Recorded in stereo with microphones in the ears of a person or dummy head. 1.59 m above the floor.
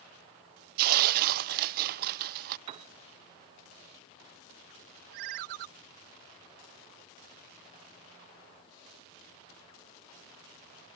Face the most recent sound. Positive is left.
turn(degrees=-45)  # may be behind; listen again after turning